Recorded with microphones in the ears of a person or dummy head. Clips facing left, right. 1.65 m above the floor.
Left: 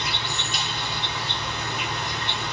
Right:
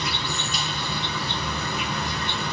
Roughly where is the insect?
Right.